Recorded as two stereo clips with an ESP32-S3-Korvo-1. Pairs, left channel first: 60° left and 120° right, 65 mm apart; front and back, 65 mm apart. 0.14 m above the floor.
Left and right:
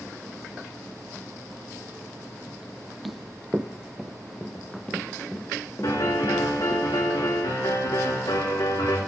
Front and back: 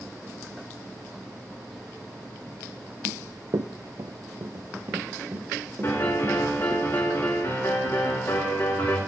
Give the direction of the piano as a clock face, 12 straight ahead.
10 o'clock.